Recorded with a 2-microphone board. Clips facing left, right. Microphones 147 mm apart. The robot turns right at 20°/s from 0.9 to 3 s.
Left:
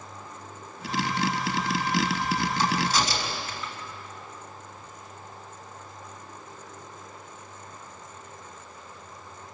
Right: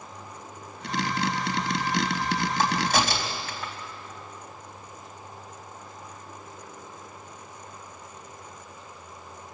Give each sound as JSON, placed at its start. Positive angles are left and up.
{"t": 2.6, "sound": "a crack", "side_deg": -55, "distance_m": 3.5}